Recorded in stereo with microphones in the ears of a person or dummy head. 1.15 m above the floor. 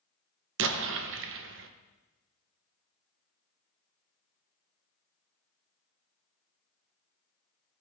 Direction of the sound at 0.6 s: 65° right (ahead or behind).